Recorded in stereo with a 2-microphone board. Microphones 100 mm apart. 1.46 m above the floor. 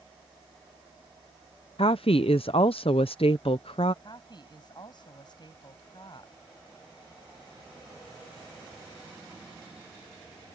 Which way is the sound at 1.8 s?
70° left (ahead or behind).